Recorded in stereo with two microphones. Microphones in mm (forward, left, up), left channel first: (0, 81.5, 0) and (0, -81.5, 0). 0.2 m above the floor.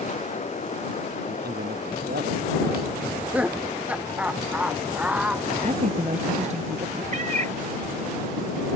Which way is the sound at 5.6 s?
45° right (ahead or behind).